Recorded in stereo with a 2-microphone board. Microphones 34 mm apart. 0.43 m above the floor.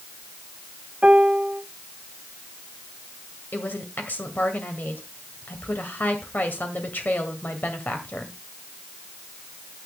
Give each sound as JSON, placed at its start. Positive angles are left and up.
{"t": 1.0, "sound": "a piano", "side_deg": -35, "distance_m": 0.7}
{"t": 3.5, "sound": "a woman speaking", "side_deg": 60, "distance_m": 2.0}